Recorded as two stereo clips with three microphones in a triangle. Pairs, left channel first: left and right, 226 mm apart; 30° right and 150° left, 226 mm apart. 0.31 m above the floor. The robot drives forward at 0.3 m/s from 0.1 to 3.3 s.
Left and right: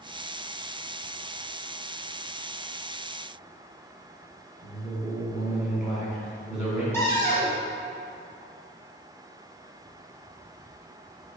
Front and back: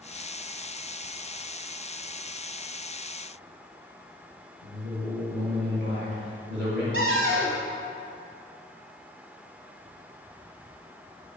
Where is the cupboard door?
165° left, 1.3 m.